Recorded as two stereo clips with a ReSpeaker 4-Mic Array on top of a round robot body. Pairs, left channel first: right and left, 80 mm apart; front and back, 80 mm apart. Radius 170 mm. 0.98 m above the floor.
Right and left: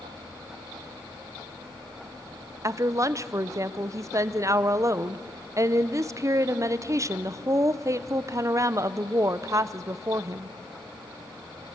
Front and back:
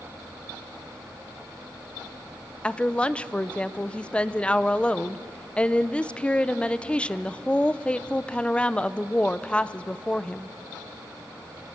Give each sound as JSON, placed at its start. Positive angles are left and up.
{"t": 2.6, "sound": "a woman speaking", "azimuth_deg": 70, "distance_m": 0.9}